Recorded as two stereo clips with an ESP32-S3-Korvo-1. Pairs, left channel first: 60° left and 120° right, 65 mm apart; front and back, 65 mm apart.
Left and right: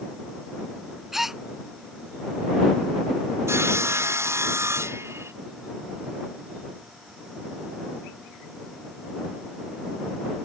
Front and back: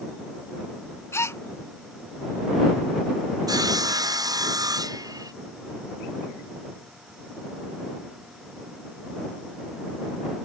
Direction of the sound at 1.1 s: 35° right.